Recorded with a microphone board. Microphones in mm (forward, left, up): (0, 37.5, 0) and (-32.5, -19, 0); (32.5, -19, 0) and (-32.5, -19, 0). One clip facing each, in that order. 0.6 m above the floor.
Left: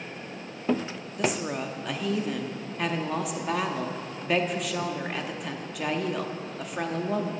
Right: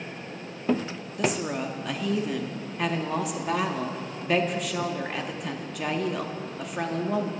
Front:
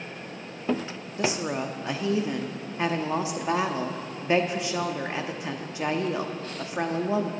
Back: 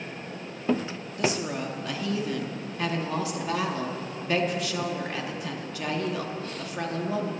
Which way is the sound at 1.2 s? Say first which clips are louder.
Right 1 dB, front 1 dB; 30° right.